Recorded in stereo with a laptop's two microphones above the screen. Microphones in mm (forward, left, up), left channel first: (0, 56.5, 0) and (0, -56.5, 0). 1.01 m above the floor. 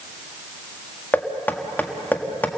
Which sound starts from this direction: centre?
Knocking, at 1.1 s.